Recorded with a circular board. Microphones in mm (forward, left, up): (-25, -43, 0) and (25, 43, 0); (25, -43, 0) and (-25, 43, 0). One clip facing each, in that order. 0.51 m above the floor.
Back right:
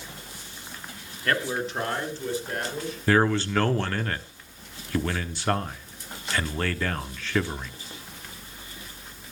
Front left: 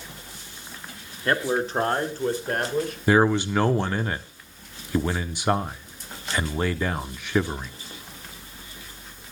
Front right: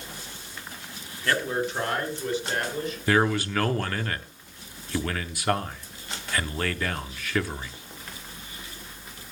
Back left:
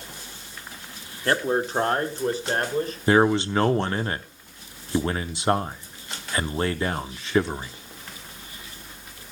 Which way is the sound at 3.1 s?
110° left.